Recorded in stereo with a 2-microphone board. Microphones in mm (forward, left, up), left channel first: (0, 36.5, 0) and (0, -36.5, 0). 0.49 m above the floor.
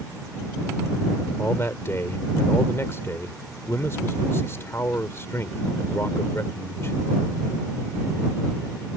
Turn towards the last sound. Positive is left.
turn(degrees=40)  # may be behind; listen again after turning